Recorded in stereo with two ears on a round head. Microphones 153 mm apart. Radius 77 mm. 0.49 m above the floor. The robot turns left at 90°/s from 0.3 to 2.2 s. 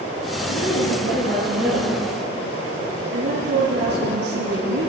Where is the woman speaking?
95° left, 8.5 m; by 4.9 s 60° right, 8.5 m.